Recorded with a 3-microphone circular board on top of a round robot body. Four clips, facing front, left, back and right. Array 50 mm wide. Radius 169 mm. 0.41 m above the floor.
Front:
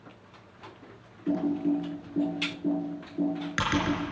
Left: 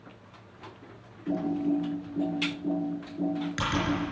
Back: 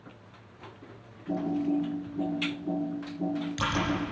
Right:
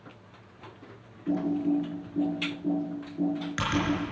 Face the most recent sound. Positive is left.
turn(degrees=-15)